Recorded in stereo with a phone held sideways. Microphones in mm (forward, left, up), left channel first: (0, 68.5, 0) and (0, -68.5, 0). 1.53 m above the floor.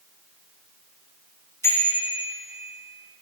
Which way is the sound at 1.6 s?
20° left (ahead or behind).